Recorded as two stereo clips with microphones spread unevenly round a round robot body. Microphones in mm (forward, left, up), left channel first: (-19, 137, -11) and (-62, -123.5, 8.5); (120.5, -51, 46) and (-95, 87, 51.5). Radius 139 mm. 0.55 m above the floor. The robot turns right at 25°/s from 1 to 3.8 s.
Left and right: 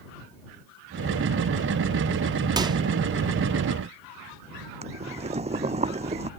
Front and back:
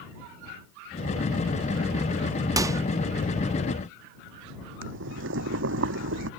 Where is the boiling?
165° right.